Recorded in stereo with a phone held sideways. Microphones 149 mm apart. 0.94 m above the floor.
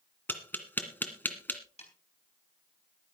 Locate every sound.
0.3 s tapping: 10° left (ahead or behind), 1.9 m
1.8 s a snare drum: 45° left (ahead or behind), 4 m